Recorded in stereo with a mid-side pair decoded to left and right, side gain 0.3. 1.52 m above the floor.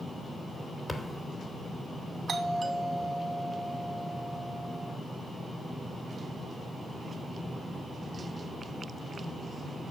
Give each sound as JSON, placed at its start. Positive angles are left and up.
{"t": 0.9, "sound": "a thud", "azimuth_deg": 25, "distance_m": 2.5}
{"t": 2.3, "sound": "a doorbell", "azimuth_deg": -55, "distance_m": 3.0}